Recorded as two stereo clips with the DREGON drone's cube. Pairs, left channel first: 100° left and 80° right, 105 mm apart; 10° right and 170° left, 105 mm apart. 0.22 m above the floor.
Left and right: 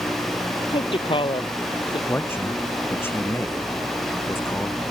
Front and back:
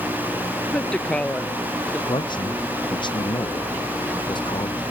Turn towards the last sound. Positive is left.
turn(degrees=30)